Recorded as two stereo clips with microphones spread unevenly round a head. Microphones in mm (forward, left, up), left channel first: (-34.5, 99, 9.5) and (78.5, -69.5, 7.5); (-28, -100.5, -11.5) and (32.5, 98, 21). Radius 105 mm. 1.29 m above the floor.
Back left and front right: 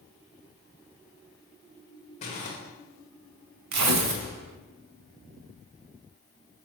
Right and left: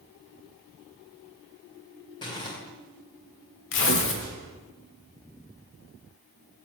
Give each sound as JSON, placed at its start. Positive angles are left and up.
{"t": 2.2, "sound": "crumpling", "azimuth_deg": -175, "distance_m": 2.0}
{"t": 3.7, "sound": "tearing paper", "azimuth_deg": -70, "distance_m": 1.2}